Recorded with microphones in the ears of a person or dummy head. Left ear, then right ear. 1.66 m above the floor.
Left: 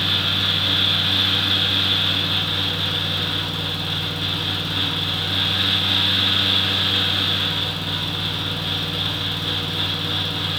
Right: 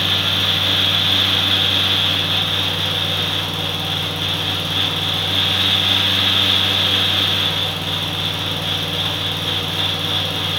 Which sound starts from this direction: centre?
A fan, at 0.0 s.